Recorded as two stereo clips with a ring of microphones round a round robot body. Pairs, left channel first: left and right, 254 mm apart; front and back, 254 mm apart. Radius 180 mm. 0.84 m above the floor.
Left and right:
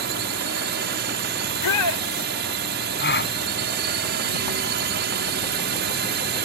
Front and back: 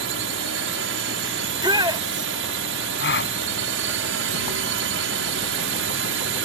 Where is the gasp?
45° left.